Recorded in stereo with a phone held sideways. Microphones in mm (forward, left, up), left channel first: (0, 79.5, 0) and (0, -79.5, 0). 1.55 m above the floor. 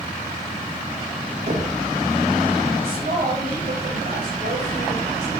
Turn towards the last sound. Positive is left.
turn(degrees=-85)